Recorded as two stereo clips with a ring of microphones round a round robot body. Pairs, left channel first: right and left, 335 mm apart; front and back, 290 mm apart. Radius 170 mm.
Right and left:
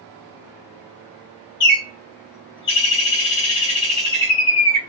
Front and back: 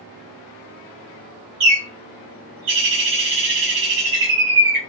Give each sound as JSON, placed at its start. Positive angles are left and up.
{"t": 1.6, "sound": "a bird", "azimuth_deg": -170, "distance_m": 2.0}